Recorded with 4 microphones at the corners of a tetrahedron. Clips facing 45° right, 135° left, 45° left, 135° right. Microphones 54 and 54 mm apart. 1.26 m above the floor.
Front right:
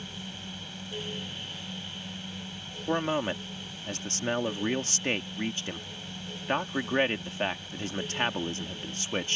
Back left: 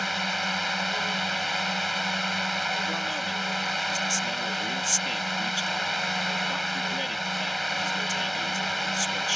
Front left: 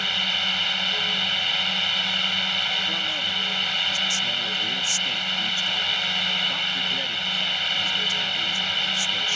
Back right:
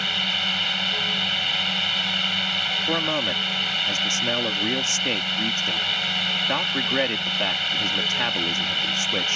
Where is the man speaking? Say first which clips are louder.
Front right 1 dB, back right 3 dB; 95° right.